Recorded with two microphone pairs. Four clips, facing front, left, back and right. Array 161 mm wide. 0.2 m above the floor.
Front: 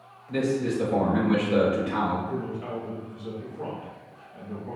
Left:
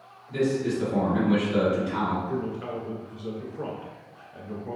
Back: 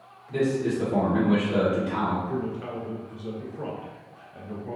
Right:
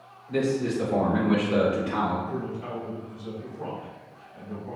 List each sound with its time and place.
0.3 s a man speaking: 80° right, 1.8 m
2.3 s a man speaking: 90° left, 2.0 m